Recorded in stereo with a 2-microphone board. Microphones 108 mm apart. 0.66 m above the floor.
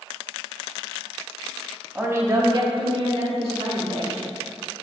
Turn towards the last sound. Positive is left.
turn(degrees=-75)  # may be behind; listen again after turning